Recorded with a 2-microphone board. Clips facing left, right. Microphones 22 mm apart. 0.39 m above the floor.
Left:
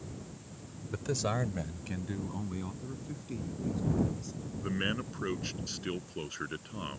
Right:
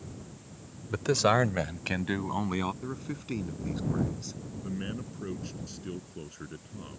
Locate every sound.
0.9 s a man speaking: 30° right (ahead or behind); by 2.7 s 75° right (ahead or behind)
2.8 s a man speaking: 50° right (ahead or behind)
4.6 s a man speaking: 45° left (ahead or behind)